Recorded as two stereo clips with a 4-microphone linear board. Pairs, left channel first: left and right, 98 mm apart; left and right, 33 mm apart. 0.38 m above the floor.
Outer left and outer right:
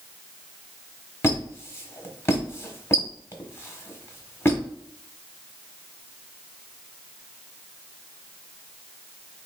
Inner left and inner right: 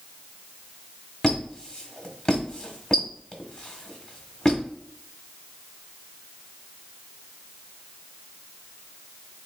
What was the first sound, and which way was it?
A squeak, 30° left (ahead or behind).